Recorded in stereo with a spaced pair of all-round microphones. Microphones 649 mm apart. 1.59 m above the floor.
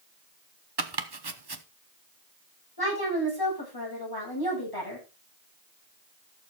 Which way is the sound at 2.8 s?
35° left (ahead or behind).